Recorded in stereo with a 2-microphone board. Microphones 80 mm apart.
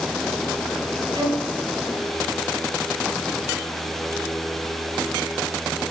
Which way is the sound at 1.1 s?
50° right (ahead or behind).